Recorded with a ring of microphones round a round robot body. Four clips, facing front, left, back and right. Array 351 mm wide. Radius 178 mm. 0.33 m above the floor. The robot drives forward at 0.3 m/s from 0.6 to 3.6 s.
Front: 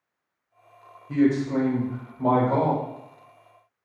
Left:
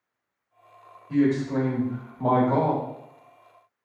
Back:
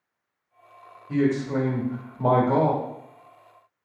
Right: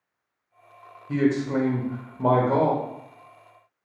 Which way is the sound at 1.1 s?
85° right.